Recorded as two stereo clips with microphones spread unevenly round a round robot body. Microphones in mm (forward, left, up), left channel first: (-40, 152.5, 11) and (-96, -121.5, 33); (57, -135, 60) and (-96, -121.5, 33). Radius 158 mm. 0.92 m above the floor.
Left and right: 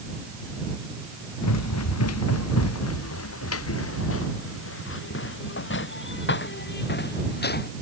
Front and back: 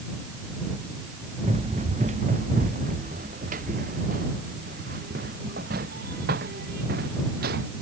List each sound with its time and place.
1.4 s running footsteps: 105° left; by 7.7 s 135° left